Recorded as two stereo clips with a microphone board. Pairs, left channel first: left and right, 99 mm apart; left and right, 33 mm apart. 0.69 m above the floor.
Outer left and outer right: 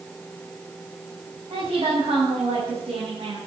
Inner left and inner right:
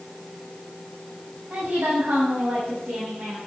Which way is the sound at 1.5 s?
75° right (ahead or behind).